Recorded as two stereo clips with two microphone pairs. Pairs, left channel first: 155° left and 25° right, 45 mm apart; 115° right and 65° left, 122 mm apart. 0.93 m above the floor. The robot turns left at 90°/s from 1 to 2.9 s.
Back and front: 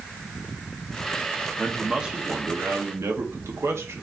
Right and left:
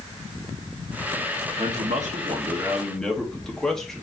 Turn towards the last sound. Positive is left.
turn(degrees=-30)